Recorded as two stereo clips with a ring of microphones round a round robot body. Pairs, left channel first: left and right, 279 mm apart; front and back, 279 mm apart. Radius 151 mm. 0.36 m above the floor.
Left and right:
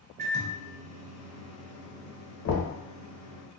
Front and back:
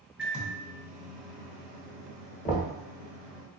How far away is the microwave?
About 0.6 m.